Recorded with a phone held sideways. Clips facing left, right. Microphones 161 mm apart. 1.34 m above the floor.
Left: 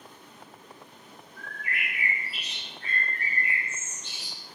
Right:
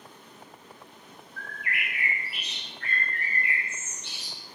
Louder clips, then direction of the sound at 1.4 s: Right 1 dB; 60° right (ahead or behind).